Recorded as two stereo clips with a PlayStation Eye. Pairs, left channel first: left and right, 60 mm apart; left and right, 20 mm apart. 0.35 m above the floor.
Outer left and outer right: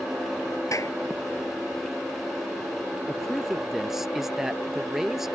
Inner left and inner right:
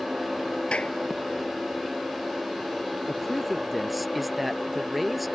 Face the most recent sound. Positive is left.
turn(degrees=-5)  # may be behind; listen again after turning